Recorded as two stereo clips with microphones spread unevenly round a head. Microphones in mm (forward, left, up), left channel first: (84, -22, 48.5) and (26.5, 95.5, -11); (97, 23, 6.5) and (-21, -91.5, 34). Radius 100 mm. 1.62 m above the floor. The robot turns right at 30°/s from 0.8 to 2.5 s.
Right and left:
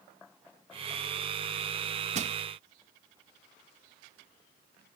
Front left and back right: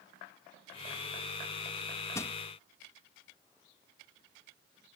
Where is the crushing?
115° left; by 2.4 s 125° left.